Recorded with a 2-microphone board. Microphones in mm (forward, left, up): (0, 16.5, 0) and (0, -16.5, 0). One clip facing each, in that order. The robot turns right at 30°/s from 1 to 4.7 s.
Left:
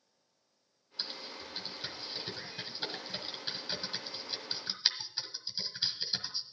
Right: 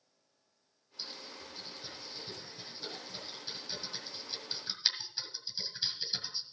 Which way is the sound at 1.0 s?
50° left (ahead or behind).